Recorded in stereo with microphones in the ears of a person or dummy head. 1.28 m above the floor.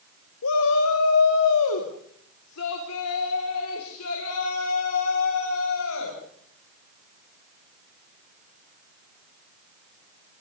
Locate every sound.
0.4 s a shout: 75° left (ahead or behind), 1.6 m; by 6.2 s 80° left, 7 m